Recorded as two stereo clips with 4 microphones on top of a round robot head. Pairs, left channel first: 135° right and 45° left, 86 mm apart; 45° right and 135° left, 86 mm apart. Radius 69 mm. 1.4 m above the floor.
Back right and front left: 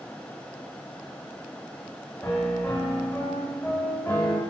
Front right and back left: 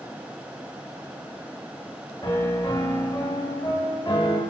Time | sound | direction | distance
2.2 | a piano | 75° right | 1.2 m